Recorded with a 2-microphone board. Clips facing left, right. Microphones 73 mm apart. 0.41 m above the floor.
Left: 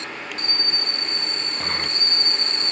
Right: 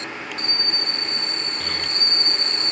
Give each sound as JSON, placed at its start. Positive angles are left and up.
{"t": 1.6, "sound": "a child speaking", "side_deg": 35}